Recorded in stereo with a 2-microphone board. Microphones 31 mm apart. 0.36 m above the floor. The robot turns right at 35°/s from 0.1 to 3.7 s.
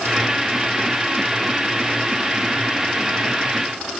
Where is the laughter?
No laughter in this recording.